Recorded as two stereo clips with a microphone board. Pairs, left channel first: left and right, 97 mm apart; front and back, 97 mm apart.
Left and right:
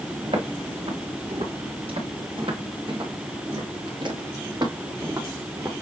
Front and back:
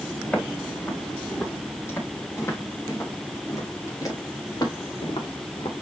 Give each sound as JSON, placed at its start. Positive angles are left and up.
{"t": 0.2, "sound": "footsteps", "azimuth_deg": -75, "distance_m": 4.5}